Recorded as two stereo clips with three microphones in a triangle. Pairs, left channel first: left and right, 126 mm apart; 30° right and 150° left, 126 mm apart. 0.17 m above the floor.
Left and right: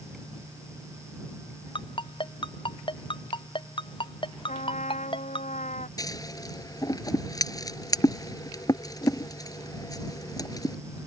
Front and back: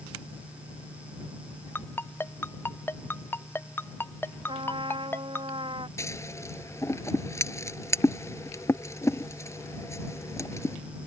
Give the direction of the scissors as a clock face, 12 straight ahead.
11 o'clock.